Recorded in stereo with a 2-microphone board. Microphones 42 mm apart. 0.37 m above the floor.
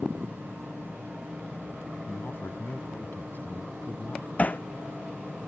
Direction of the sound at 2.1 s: 55° left (ahead or behind).